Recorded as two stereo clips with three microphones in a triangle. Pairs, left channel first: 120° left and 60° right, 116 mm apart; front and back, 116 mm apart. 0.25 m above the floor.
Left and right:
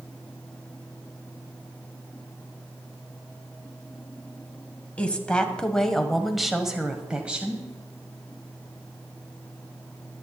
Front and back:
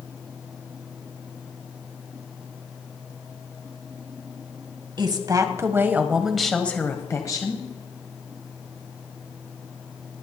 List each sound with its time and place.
5.0 s a woman speaking: 165° right, 1.4 m; by 7.7 s 10° left, 1.4 m